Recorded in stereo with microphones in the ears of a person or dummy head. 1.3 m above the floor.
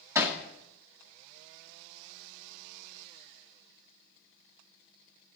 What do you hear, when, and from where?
0.1 s hammering: 10° right (ahead or behind), 1.8 m